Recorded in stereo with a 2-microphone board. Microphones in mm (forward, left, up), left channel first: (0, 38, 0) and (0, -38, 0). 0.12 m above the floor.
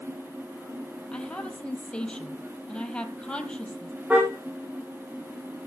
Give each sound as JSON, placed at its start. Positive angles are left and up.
{"t": 1.1, "sound": "a woman speaking", "side_deg": 10, "distance_m": 3.5}
{"t": 4.1, "sound": "a car horn", "side_deg": -15, "distance_m": 4.5}